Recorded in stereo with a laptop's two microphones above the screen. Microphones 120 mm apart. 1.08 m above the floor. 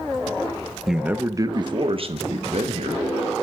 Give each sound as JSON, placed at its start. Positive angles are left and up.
{"t": 0.9, "sound": "a man speaking", "side_deg": 0, "distance_m": 0.7}